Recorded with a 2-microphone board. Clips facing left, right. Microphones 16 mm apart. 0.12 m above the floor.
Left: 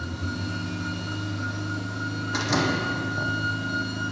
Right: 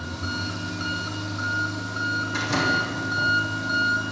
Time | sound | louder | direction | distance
0.0 | an engine running | right 2 dB | 25° right (ahead or behind) | 4.5 m
2.3 | a door slam | even | 20° left (ahead or behind) | 3.5 m